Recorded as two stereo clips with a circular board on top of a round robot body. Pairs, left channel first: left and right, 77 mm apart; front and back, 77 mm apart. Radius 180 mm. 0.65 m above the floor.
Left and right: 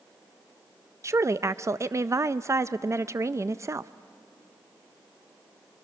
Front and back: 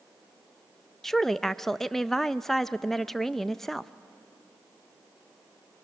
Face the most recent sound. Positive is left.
turn(degrees=-80)